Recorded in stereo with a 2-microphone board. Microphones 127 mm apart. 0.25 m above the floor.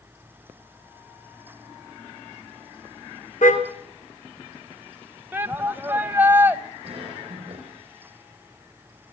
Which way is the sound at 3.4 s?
75° left (ahead or behind).